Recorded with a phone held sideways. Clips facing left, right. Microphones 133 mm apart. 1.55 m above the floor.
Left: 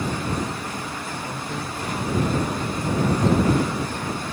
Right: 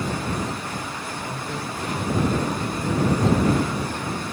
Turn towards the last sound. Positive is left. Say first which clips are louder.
# even
turn(degrees=-10)  # may be behind; listen again after turning